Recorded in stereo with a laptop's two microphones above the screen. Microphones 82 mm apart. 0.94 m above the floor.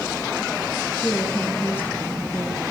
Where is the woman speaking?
30° left (ahead or behind), 3.5 m.